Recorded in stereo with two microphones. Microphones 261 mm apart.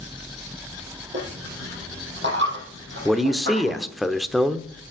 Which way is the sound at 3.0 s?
Centre (ahead or behind).